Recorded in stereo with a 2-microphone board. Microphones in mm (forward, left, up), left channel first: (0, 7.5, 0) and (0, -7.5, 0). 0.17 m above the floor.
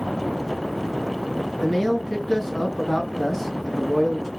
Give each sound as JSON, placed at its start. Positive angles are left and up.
{"t": 1.6, "sound": "a man speaking", "side_deg": 25, "distance_m": 1.7}